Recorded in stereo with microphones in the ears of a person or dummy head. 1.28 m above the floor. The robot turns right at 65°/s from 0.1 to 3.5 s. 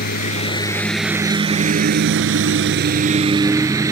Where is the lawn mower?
125° left; by 3.9 s 15° right.